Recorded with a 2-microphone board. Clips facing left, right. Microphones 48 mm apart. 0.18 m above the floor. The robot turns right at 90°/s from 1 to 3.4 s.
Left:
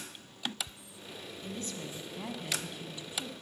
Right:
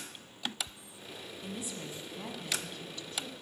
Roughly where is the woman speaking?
Centre.